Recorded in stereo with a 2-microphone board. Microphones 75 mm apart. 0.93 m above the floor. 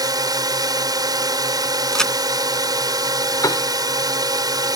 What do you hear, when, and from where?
0.0 s a drone: 60° right (ahead or behind)
1.9 s a crack: 10° left (ahead or behind)
3.4 s a piano: 50° left (ahead or behind)